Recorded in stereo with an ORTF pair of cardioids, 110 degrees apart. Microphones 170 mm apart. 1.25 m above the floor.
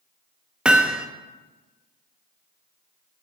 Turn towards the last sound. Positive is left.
turn(degrees=-5)